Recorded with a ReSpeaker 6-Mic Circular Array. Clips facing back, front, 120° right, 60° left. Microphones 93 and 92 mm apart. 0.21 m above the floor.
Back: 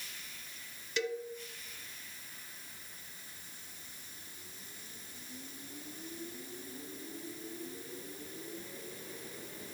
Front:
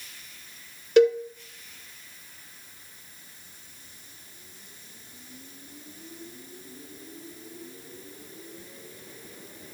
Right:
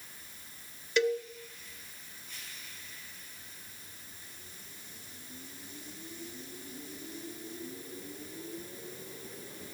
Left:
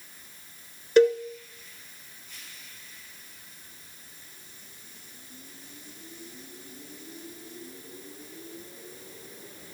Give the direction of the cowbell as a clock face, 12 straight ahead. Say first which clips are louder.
Front 18 dB, left 10 dB; 11 o'clock.